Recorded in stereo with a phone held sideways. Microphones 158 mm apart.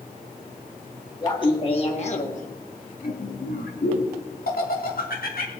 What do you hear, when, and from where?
1.2 s laughter: 30° left (ahead or behind), 2 m; by 5.5 s 70° left (ahead or behind), 3 m